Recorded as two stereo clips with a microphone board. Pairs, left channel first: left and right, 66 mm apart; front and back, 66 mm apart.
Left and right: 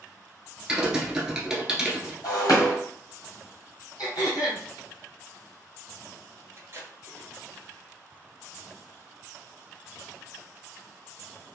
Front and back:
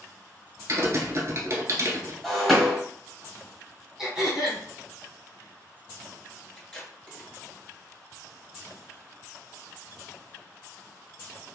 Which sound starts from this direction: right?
Tape being pulled, at 6.6 s.